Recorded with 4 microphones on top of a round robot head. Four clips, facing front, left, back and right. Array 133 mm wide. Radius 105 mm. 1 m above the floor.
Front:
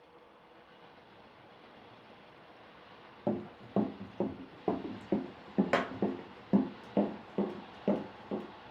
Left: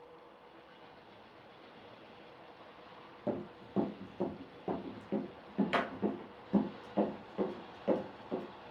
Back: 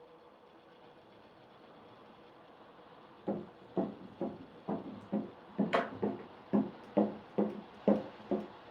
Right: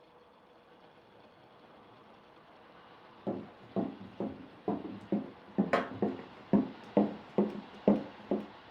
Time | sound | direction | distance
3.3 | running footsteps | straight ahead | 2.5 m